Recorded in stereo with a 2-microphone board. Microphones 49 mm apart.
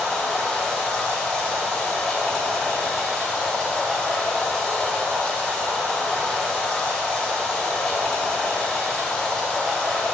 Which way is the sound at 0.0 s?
20° left (ahead or behind).